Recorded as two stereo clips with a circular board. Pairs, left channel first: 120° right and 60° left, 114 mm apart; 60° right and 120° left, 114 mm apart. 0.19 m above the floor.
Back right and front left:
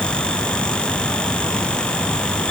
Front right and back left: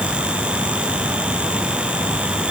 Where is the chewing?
I don't hear chewing.